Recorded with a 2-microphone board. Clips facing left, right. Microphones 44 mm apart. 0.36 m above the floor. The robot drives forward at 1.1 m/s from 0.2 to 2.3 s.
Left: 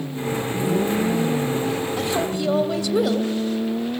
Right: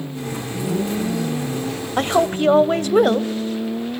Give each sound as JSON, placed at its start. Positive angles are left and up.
{"t": 2.0, "sound": "a woman speaking", "side_deg": -50, "distance_m": 1.2}